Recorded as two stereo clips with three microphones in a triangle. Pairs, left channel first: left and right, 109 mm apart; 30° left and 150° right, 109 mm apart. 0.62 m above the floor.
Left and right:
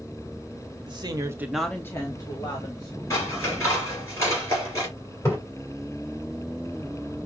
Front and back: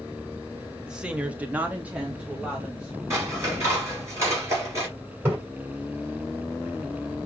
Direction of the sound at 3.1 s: 150° left.